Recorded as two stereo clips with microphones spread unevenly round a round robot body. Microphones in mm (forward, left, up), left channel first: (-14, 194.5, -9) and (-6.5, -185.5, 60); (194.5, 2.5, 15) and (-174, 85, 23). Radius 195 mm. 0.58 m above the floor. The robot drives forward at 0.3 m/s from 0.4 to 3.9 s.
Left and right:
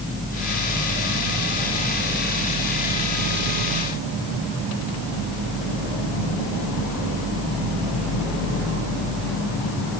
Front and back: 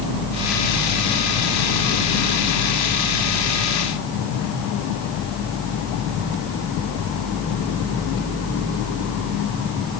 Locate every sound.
Only background noise.